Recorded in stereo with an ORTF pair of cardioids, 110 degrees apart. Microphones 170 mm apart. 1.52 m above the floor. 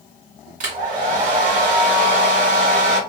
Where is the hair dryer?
45° right, 1.4 m.